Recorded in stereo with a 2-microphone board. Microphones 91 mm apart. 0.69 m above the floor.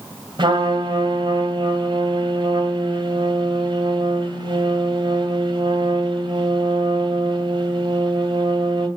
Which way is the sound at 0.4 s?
60° right (ahead or behind).